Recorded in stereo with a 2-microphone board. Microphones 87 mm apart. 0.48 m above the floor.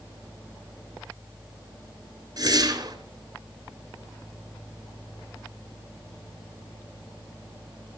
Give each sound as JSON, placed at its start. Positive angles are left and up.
{"t": 2.4, "sound": "a whoosh", "side_deg": -45, "distance_m": 3.0}